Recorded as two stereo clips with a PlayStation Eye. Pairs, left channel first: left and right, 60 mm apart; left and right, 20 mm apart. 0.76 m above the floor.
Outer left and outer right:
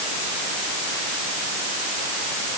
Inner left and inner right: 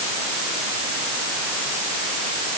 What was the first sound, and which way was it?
Only background noise.